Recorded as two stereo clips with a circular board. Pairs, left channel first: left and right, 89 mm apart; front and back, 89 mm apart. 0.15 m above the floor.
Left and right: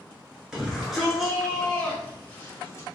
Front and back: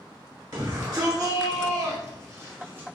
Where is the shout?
170° right, 1.7 m; by 2.9 s 125° left, 1.2 m.